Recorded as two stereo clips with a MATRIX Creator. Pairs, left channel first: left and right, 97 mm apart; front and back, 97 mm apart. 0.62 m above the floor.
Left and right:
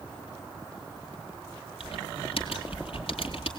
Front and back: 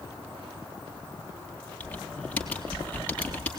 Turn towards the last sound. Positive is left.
turn(degrees=75)